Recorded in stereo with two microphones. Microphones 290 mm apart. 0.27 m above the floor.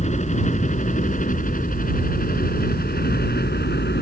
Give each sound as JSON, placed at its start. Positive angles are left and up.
{"t": 0.0, "sound": "a helicopter", "side_deg": 25}